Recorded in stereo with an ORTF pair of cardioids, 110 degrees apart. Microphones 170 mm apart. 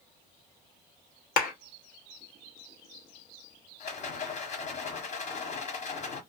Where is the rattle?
50° left, 1.3 m.